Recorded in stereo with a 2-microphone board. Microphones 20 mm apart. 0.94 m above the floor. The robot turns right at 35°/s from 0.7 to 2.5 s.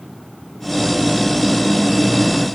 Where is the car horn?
No car horn in this recording.